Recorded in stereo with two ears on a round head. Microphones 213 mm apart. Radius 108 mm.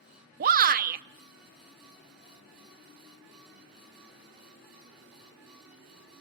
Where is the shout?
35° right (ahead or behind), 0.7 m.